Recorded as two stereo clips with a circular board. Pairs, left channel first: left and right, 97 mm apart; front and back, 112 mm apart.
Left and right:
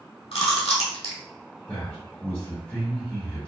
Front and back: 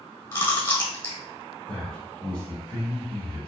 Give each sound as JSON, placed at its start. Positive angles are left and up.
{"t": 0.3, "sound": "chewing", "azimuth_deg": 65, "distance_m": 1.1}
{"t": 1.7, "sound": "a man speaking", "azimuth_deg": 50, "distance_m": 1.5}